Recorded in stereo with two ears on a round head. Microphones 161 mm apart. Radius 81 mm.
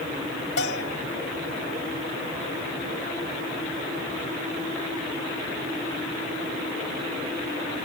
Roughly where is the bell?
Left.